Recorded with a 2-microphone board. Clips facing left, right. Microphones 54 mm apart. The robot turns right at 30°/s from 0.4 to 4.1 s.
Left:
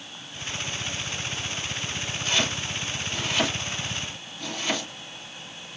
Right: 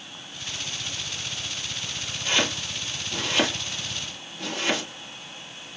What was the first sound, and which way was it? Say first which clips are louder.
Chopping: right 2 dB; 35° right (ahead or behind).